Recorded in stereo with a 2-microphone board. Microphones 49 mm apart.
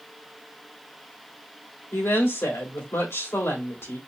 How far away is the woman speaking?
About 3 m.